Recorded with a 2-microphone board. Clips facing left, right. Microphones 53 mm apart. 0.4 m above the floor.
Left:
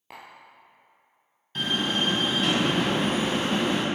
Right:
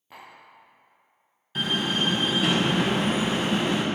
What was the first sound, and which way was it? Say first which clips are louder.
Tapping: left 1 dB; 85° left.